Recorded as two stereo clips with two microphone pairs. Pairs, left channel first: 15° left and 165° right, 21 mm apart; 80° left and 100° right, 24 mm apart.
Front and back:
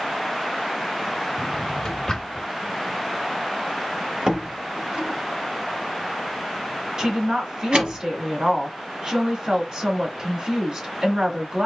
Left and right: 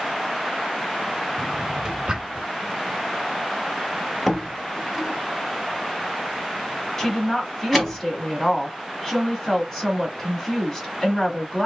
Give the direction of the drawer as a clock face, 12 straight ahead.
2 o'clock.